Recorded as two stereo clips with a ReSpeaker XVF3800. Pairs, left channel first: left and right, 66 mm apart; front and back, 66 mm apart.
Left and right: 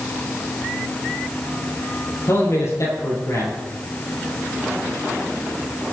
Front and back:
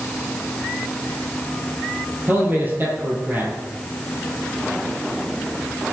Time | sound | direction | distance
2.3 | a man speaking | 125° left | 4.5 m